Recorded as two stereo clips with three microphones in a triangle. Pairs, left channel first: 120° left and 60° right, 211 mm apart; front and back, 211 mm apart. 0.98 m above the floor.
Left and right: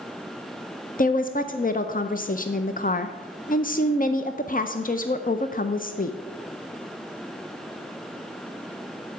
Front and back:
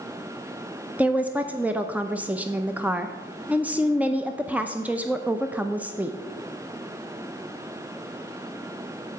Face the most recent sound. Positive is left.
turn(degrees=100)